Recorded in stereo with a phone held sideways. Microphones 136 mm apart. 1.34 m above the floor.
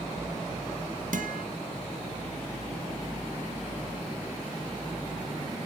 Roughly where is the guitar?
Right.